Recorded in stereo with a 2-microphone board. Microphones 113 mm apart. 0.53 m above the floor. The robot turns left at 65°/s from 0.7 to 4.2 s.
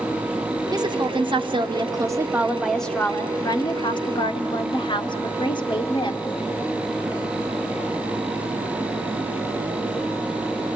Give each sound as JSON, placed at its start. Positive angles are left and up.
{"t": 0.7, "sound": "a woman speaking", "azimuth_deg": -50, "distance_m": 1.1}